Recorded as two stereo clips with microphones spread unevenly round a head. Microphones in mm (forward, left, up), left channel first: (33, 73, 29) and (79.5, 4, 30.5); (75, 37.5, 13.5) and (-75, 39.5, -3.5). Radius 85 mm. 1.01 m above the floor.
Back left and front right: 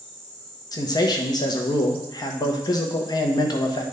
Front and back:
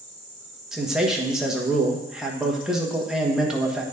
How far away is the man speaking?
About 1.3 m.